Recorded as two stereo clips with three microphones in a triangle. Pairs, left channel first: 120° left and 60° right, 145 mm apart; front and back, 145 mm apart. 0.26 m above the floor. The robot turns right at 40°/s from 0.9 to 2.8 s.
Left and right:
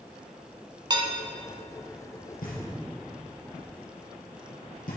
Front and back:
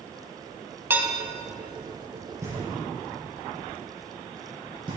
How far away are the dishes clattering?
About 1.1 m.